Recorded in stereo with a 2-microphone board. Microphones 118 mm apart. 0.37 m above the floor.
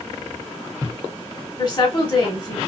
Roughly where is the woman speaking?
Left.